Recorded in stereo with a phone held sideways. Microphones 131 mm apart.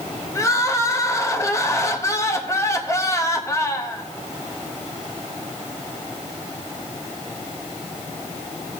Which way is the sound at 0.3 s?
25° left (ahead or behind).